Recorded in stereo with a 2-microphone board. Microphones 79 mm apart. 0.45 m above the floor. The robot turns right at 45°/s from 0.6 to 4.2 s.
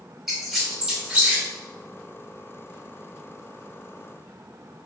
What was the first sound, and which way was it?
A squeak, 5° right (ahead or behind).